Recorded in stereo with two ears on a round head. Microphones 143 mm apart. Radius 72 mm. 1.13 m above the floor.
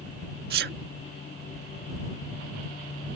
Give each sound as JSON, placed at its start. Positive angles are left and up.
{"t": 0.5, "sound": "a sneeze", "side_deg": -65}